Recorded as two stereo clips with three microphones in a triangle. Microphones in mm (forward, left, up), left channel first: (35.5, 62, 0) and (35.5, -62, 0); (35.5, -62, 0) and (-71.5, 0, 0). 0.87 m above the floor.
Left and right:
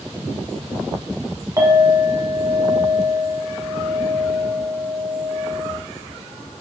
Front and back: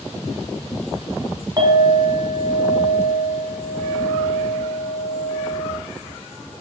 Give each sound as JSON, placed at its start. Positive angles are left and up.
{"t": 1.6, "sound": "a clink", "azimuth_deg": -155, "distance_m": 2.5}